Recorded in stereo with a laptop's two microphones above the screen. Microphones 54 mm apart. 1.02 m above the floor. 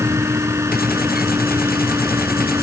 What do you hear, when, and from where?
0.0 s a fan: 60° right (ahead or behind)